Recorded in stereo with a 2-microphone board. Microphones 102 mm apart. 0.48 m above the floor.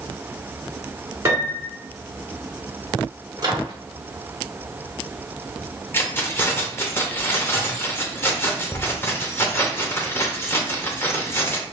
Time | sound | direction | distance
1.2 | a piano | 30° right (ahead or behind) | 1.1 m
3.4 | a microwave | 40° right (ahead or behind) | 0.9 m
5.9 | keys jangling | 25° left (ahead or behind) | 0.8 m